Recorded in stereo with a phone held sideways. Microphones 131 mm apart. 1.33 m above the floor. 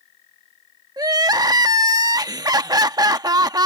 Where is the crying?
30° right (ahead or behind).